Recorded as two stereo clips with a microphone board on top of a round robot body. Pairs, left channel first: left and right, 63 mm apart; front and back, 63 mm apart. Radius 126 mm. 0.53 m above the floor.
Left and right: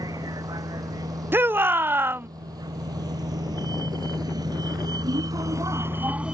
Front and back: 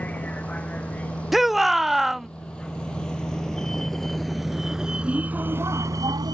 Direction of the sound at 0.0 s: 70° right.